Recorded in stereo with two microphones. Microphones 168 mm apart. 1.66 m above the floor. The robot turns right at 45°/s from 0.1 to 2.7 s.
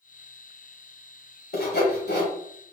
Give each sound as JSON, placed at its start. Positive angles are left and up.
{"t": 1.5, "sound": "sawing", "side_deg": 70, "distance_m": 1.1}